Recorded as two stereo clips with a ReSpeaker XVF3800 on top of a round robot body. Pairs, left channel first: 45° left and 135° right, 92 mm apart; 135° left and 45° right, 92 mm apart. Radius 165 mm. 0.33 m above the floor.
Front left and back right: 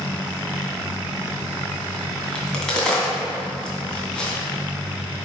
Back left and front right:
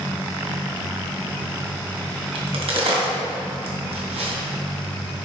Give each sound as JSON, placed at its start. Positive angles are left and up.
{"t": 2.4, "sound": "a crack", "azimuth_deg": -35, "distance_m": 3.0}